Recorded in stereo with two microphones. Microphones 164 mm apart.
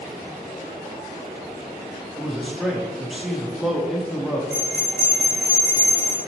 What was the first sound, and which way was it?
A man speaking, centre (ahead or behind).